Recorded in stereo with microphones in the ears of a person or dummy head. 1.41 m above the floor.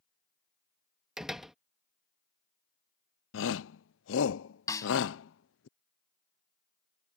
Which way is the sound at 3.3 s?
60° left (ahead or behind).